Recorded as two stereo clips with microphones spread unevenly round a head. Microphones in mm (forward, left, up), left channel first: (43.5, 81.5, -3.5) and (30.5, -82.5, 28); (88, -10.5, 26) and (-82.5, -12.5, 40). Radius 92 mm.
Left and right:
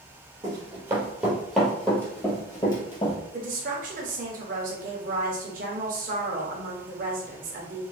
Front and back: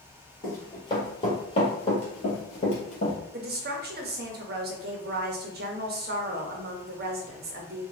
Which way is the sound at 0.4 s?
70° right.